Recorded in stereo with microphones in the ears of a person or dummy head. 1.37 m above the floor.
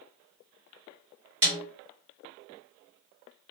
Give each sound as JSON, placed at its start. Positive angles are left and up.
{"t": 1.4, "sound": "a snare drum", "side_deg": -30, "distance_m": 2.5}